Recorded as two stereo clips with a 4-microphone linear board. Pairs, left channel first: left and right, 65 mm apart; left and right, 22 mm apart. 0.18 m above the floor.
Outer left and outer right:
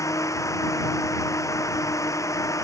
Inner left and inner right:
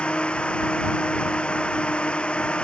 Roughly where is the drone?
Left.